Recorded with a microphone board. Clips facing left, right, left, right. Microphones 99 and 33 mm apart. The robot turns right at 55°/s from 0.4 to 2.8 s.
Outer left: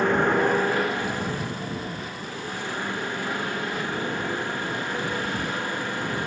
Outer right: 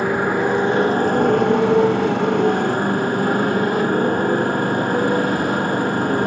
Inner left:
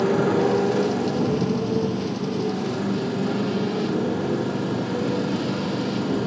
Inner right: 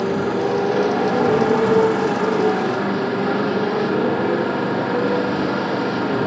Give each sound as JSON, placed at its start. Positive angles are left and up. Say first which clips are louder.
{"t": 0.0, "sound": "a motorcycle", "louder": "outer right 2 dB, even", "azimuth_deg": -175}